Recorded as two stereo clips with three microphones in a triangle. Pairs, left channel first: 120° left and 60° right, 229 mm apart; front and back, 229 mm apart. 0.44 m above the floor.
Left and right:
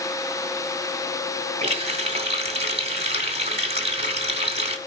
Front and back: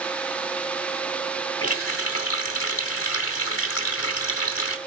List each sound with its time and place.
1.6 s a running tap: straight ahead, 1.8 m